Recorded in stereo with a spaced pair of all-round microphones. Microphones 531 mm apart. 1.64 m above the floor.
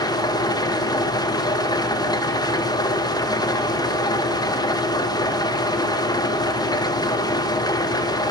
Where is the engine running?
5° left (ahead or behind), 2 m.